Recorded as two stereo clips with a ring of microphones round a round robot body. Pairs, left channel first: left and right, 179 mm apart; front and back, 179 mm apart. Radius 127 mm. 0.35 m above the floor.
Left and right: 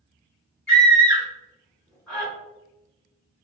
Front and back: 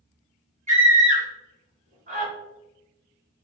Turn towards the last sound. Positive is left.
turn(degrees=175)